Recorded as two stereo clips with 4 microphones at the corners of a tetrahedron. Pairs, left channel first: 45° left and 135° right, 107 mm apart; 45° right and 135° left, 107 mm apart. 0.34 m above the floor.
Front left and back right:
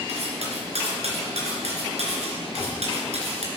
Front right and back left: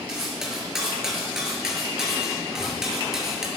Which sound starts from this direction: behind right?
Cutlery clinking, at 0.1 s.